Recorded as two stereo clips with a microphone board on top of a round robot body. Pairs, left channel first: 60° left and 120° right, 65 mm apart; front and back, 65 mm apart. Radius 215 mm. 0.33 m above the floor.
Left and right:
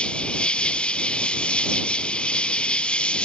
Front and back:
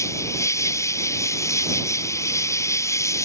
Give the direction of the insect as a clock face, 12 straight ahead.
12 o'clock.